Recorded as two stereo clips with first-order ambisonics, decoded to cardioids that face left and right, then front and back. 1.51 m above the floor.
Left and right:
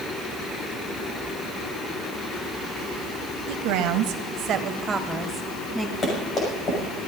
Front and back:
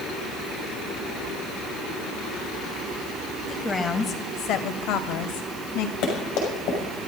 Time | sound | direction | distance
3.5 | a woman speaking | 80° right | 1.7 m
6.0 | running footsteps | 25° left | 6 m